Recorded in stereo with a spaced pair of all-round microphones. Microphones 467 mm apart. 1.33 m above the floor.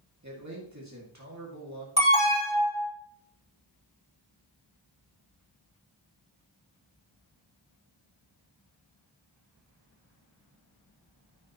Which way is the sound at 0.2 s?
35° right (ahead or behind).